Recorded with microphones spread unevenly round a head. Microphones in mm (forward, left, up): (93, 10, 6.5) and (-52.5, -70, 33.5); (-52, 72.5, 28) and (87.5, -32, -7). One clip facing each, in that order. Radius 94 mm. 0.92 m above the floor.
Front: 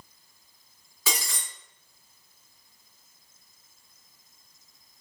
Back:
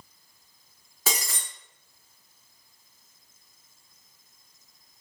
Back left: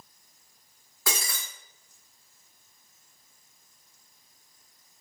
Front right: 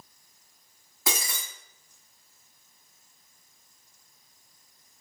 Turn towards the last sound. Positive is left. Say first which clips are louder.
# back 2 dB, front right 1 dB
turn(degrees=-110)